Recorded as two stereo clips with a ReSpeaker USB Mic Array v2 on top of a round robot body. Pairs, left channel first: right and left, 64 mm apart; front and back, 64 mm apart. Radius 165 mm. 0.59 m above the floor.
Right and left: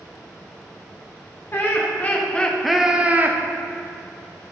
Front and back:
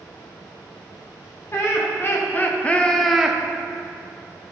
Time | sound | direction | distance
1.5 | laughter | 40° right | 2 m